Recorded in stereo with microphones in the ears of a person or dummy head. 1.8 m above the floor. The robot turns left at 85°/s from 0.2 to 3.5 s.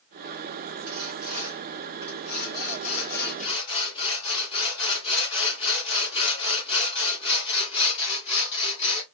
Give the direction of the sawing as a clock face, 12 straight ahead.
3 o'clock.